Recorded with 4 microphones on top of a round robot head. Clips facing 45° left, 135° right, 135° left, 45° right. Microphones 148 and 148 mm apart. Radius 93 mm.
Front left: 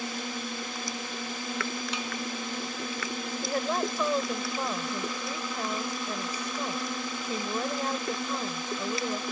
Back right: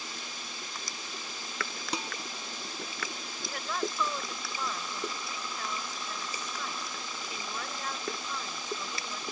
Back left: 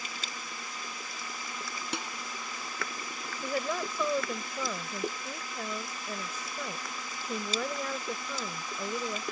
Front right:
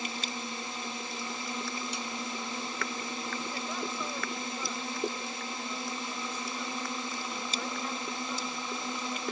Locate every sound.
0.0 s a drone: 20° left
1.9 s dishes clattering: 170° left
3.4 s a woman speaking: 105° left